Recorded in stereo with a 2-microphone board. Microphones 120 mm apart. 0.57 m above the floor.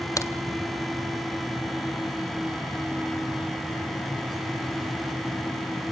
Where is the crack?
30° left (ahead or behind), 1.7 m.